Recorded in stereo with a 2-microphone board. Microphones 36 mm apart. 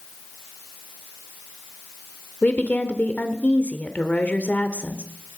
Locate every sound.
2.4 s a woman speaking: 40° left (ahead or behind), 1.5 m